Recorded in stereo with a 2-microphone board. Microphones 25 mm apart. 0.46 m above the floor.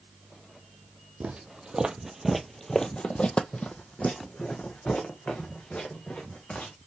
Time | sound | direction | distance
1.2 | footsteps | 45° right (ahead or behind) | 0.8 m